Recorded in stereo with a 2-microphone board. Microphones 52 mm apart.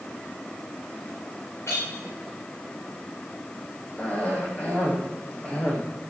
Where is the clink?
60° left (ahead or behind), 6.5 m.